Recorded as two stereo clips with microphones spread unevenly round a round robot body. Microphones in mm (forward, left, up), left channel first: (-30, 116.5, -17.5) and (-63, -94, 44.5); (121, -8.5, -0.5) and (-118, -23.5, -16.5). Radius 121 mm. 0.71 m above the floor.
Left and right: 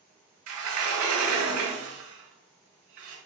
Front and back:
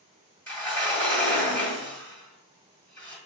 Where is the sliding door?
80° right, 1.8 m.